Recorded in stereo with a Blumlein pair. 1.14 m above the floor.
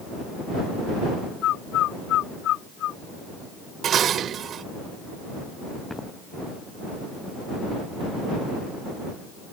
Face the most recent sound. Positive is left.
turn(degrees=5)